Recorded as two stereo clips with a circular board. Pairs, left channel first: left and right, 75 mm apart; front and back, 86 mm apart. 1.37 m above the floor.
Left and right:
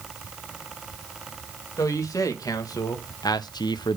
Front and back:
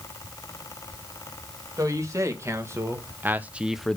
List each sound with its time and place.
1.8 s a man speaking: 130° left, 2 m; by 4.0 s 80° left, 0.5 m